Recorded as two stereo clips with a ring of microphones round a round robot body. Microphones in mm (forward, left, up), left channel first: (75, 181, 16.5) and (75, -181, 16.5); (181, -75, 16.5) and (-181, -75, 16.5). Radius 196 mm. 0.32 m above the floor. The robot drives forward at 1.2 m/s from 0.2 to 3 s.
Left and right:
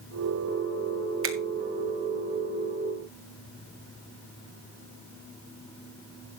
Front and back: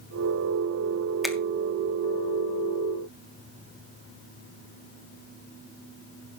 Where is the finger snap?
90° right, 1.4 m; by 1.4 s 100° right, 1.4 m.